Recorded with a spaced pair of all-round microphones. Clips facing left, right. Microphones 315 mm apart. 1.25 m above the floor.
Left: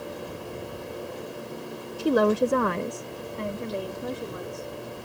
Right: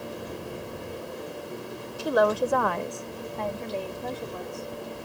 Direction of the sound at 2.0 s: 40° left (ahead or behind).